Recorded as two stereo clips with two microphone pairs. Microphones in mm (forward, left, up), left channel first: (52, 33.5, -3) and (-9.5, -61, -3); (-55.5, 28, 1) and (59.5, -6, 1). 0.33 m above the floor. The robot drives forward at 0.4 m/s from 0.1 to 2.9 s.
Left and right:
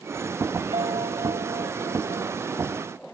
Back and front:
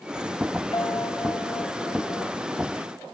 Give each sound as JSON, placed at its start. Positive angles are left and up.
{"t": 0.7, "sound": "a piano", "azimuth_deg": -140}